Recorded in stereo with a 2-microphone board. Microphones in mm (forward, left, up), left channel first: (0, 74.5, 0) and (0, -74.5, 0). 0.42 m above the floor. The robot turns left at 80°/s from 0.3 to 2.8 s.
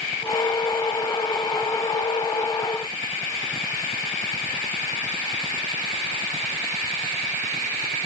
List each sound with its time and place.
Only background noise.